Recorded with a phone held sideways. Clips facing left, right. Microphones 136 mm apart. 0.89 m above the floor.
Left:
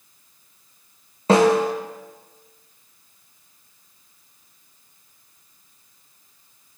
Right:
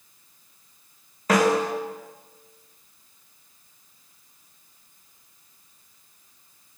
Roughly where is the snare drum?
Left.